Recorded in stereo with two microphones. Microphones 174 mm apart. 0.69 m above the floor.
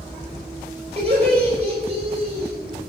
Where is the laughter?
35° right (ahead or behind), 3.5 m.